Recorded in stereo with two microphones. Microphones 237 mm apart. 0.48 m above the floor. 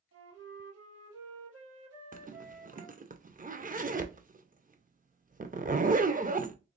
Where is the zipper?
35° right (ahead or behind), 0.6 m.